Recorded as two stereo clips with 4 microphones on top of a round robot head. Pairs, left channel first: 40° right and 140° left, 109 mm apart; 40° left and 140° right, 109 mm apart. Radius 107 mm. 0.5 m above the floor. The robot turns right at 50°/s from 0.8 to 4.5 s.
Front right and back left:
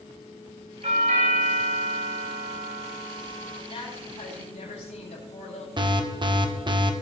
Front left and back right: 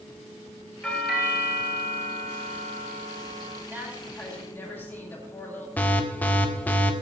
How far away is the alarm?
About 1.8 m.